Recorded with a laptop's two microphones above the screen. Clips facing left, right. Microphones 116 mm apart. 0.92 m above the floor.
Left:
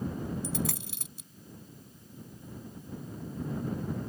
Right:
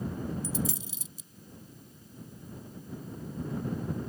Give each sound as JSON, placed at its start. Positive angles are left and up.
{"t": 0.4, "sound": "a dropped coin", "side_deg": 70}